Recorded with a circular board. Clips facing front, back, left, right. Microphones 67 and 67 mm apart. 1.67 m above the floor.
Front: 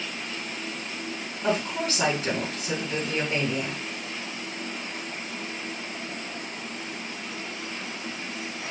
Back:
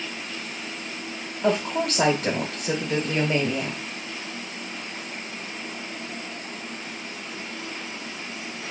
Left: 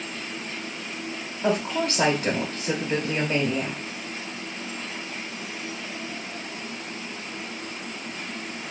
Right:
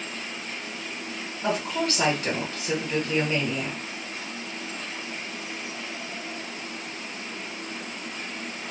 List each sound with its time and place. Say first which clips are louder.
1.4 s a woman speaking: back 3 dB, left 2 dB; 155° left, 1.4 m